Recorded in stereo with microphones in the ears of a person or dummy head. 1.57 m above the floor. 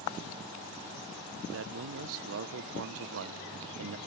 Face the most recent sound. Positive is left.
turn(degrees=-70)  # may be behind; listen again after turning